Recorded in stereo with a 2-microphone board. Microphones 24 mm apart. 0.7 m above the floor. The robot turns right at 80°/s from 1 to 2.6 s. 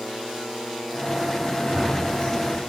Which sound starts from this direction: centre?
Running footsteps, at 1.6 s.